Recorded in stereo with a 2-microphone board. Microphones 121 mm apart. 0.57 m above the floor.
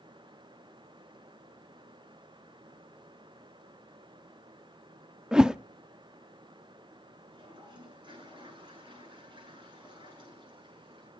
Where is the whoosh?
5° right (ahead or behind), 0.5 m.